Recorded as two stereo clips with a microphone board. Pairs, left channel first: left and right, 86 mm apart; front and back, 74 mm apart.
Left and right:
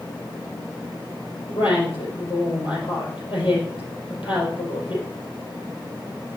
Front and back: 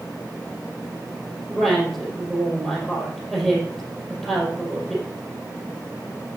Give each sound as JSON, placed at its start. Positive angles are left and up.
{"t": 1.5, "sound": "a woman speaking", "azimuth_deg": 90, "distance_m": 5.0}